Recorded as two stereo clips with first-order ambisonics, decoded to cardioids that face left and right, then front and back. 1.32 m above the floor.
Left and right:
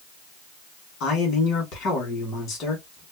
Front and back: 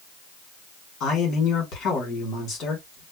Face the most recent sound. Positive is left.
turn(degrees=50)